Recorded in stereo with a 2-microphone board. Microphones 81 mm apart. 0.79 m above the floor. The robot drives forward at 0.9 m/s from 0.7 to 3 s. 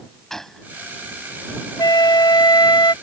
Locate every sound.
0.3 s a gunshot: 5° left (ahead or behind)
1.8 s a flute: 65° left (ahead or behind); by 2.9 s 75° left (ahead or behind)